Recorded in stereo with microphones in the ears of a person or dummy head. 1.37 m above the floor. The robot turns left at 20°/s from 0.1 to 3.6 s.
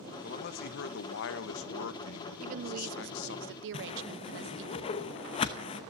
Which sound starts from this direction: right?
A woman speaking, at 2.4 s.